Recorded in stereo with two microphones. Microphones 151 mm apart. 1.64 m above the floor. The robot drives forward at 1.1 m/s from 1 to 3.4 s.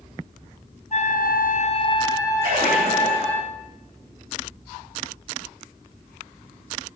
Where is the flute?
50° left (ahead or behind), 0.6 m; by 3.4 s 10° left (ahead or behind), 2.5 m.